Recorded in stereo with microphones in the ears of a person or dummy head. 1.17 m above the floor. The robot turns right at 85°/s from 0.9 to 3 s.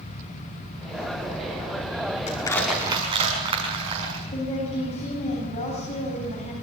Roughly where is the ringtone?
No ringtone in this recording.